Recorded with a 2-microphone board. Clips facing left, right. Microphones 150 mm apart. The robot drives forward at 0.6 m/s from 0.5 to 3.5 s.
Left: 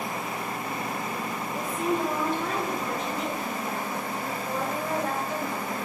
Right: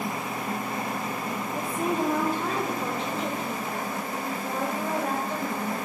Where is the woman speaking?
50° right (ahead or behind), 0.8 m; by 5.8 s 25° right (ahead or behind), 1.5 m.